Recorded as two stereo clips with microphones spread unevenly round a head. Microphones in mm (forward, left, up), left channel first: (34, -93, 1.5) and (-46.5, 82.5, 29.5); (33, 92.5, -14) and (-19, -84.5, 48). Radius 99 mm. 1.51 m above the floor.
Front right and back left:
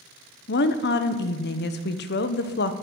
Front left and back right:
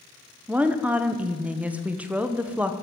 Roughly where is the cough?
No cough in this recording.